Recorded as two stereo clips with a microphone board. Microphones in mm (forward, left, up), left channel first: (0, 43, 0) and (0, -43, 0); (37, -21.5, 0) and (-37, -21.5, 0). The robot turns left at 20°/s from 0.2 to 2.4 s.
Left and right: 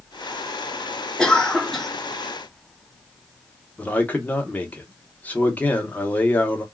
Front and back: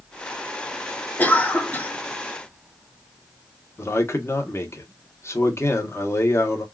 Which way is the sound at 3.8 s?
30° left.